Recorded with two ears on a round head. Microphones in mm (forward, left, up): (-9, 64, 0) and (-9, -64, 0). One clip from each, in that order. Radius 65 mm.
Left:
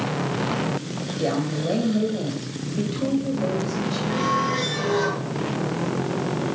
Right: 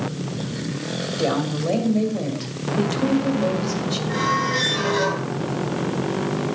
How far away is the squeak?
About 3.5 m.